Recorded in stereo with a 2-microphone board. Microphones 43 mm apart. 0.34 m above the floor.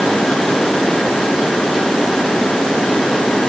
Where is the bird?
No bird in this recording.